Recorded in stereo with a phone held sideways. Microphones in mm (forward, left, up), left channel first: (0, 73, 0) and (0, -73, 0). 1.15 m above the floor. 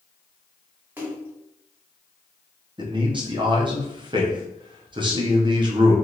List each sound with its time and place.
1.0 s a splash: 15° right (ahead or behind), 0.8 m
2.8 s a man speaking: 30° right (ahead or behind), 0.8 m